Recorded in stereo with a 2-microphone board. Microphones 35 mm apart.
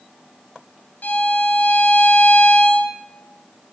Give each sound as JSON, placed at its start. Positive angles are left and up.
{"t": 1.0, "sound": "a violin", "side_deg": 60, "distance_m": 0.6}